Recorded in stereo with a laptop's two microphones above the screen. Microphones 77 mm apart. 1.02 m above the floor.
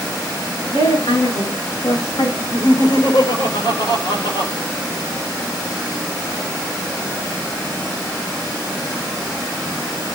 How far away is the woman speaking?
About 10 m.